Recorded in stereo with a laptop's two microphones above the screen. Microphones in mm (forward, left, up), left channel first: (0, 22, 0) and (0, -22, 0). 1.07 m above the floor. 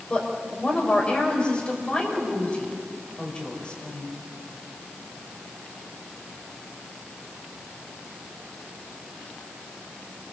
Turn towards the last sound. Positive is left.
turn(degrees=20)  # may be behind; listen again after turning